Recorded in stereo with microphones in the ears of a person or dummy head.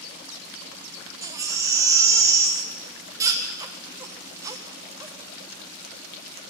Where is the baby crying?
15° right (ahead or behind), 1.2 m.